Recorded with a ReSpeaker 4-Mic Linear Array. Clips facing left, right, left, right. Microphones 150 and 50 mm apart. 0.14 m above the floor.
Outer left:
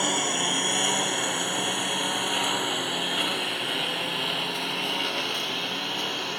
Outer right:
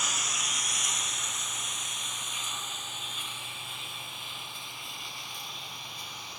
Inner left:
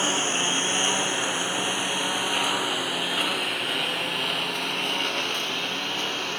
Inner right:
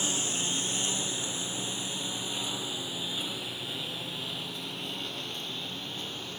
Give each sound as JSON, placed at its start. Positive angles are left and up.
{"t": 0.0, "sound": "a lawn mower", "side_deg": 60}